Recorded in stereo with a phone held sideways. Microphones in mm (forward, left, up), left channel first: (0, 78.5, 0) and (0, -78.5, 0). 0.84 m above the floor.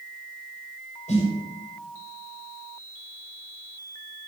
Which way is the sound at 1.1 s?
50° left (ahead or behind).